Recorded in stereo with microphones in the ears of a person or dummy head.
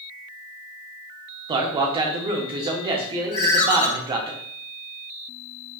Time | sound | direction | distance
1.5 | a man speaking | 25° right (ahead or behind) | 0.7 m
3.3 | a ringtone | 45° left (ahead or behind) | 1.3 m